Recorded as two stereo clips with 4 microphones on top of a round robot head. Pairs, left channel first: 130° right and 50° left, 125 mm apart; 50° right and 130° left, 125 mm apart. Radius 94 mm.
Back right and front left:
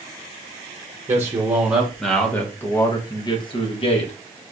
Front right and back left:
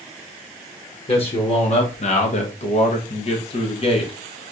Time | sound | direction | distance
1.1 | a man speaking | 15° right | 1.3 m